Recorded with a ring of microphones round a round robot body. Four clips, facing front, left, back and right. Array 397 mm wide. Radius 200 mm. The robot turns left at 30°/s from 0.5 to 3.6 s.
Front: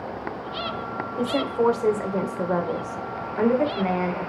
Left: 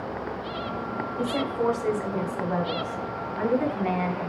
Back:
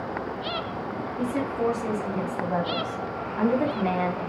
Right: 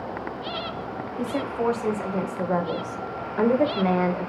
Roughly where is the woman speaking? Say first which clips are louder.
Even, front 4 dB; ahead.